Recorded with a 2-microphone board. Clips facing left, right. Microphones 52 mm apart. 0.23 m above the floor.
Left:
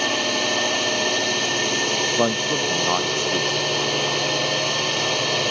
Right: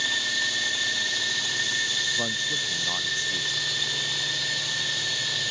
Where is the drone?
60° left (ahead or behind).